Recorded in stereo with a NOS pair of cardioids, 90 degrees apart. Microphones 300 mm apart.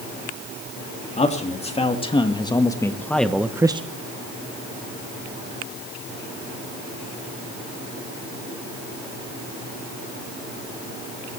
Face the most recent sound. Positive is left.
turn(degrees=-15)